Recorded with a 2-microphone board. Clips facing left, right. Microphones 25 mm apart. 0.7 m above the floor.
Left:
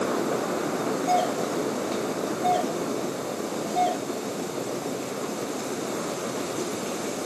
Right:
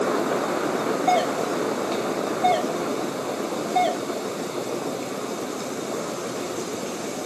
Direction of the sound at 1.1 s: 50° right (ahead or behind).